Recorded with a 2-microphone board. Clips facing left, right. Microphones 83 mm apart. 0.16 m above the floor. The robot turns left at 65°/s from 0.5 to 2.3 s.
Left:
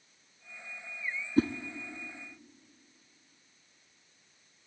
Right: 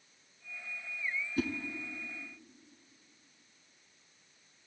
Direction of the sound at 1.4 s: 40° left (ahead or behind).